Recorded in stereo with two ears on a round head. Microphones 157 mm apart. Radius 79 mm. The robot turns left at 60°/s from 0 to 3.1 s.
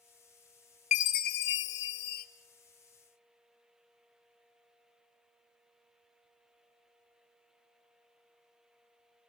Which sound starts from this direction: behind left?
A chime, at 0.9 s.